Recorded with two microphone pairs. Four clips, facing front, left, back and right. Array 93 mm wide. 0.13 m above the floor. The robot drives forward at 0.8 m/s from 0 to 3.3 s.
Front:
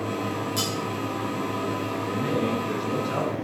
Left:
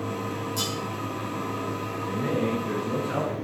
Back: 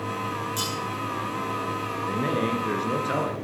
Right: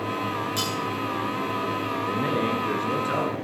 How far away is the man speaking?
About 2 m.